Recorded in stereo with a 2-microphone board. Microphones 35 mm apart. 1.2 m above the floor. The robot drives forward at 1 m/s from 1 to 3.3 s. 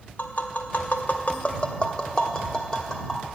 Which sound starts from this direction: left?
Tapping, at 0.2 s.